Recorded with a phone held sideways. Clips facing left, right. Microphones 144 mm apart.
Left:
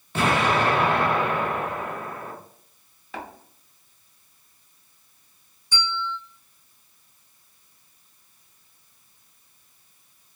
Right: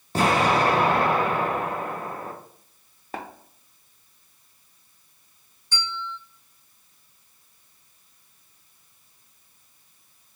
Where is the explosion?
40° right (ahead or behind), 0.6 m.